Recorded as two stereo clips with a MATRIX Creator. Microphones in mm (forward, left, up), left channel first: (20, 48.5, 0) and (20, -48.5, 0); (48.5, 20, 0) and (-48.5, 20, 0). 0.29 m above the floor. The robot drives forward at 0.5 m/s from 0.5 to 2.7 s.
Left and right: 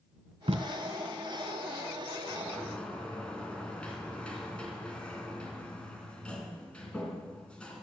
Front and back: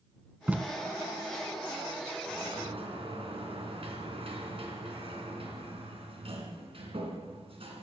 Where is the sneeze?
No sneeze in this recording.